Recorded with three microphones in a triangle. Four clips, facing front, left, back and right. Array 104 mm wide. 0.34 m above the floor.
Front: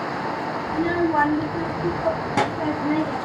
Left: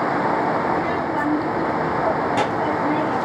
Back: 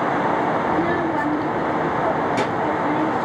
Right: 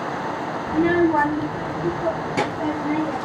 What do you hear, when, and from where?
0.7 s a child speaking: 115° right, 0.7 m; by 3.2 s 15° left, 2.5 m